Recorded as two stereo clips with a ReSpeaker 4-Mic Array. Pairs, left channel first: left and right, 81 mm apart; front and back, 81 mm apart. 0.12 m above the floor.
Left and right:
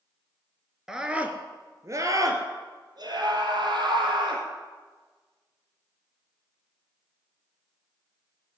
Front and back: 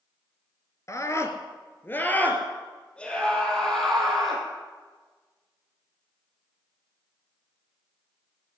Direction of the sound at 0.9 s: 10° right.